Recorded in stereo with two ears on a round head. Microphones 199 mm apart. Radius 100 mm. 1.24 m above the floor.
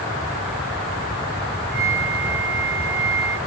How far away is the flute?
About 4 m.